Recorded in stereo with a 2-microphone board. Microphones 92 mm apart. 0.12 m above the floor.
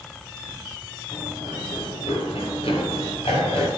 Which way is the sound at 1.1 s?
90° left.